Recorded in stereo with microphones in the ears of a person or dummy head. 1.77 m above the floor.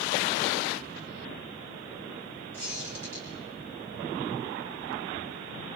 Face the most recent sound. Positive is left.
turn(degrees=-75)  # may be behind; listen again after turning